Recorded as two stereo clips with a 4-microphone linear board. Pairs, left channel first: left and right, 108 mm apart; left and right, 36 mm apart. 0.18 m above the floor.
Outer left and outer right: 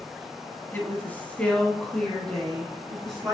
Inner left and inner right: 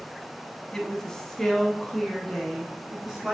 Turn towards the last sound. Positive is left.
turn(degrees=0)  # may be behind; listen again after turning